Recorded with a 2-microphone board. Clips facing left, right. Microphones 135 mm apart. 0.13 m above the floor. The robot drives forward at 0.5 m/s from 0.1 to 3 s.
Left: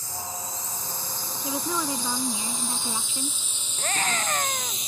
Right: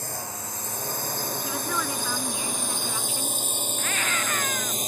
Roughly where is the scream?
Left.